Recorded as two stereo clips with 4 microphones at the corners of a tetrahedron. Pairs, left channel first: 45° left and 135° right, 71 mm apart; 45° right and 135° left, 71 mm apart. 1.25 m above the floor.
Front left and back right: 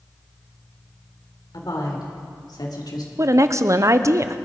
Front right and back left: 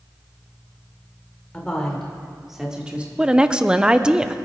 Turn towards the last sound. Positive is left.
turn(degrees=-150)